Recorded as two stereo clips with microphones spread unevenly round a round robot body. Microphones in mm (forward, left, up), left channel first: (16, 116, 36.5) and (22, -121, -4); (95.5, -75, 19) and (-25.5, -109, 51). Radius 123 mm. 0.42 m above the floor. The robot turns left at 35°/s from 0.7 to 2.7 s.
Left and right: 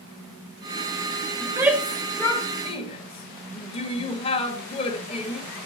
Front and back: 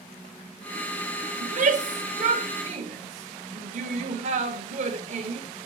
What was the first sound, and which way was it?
A shout, 155° right.